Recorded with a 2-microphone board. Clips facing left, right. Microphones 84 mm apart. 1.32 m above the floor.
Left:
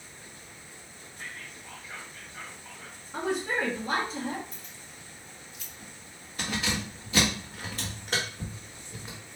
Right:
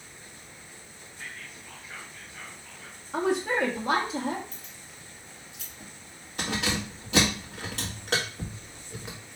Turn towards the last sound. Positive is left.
turn(degrees=-75)  # may be behind; listen again after turning